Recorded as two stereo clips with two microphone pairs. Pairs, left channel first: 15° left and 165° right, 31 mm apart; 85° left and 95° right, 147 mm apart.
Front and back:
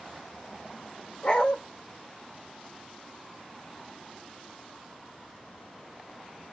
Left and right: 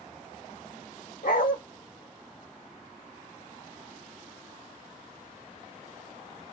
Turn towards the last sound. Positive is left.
turn(degrees=80)